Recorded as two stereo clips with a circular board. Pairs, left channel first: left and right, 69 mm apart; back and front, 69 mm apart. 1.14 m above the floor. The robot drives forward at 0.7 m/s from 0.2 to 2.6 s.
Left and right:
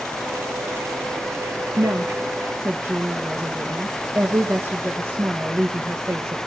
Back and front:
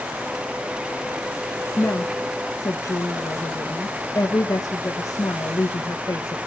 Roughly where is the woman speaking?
Behind right.